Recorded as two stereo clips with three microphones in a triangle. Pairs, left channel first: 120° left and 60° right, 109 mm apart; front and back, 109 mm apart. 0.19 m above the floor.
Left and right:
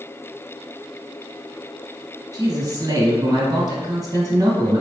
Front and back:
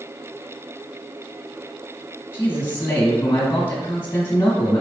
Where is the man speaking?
50° right, 1.2 m.